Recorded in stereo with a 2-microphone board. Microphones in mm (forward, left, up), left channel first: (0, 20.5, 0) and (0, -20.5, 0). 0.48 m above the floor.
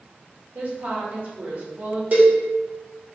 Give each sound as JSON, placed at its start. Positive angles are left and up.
{"t": 0.6, "sound": "a woman speaking", "side_deg": -45, "distance_m": 1.0}
{"t": 2.1, "sound": "a cowbell", "side_deg": -45, "distance_m": 1.3}